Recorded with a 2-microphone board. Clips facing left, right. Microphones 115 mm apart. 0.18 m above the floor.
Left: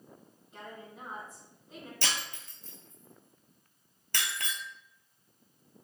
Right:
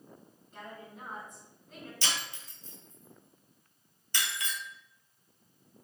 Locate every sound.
0.5 s a woman speaking: 5° left (ahead or behind), 1.8 m
2.0 s breaking glass: 60° left (ahead or behind), 0.7 m